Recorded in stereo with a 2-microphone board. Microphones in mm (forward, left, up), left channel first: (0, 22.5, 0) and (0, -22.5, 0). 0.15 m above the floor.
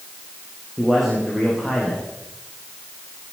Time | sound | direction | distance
0.8 | a man speaking | 5° right (ahead or behind) | 8.5 m